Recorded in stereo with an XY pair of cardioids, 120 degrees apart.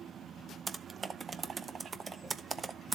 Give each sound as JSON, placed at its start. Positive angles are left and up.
{"t": 0.7, "sound": "typing on a keyboard", "azimuth_deg": -30, "distance_m": 0.7}